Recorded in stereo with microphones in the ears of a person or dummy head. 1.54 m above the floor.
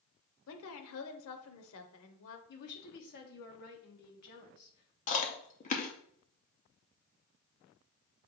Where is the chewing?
45° left (ahead or behind), 0.6 m.